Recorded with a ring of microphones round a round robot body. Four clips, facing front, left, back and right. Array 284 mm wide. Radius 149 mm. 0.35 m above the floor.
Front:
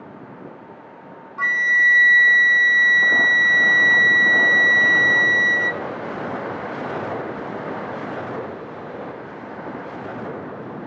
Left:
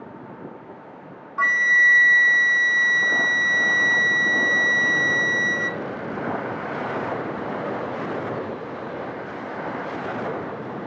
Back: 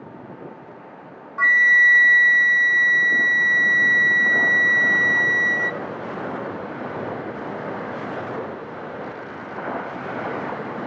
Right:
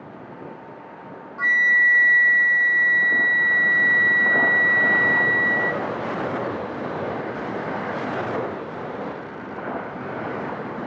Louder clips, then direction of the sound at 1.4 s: Left 1 dB, back 3 dB; 105° left.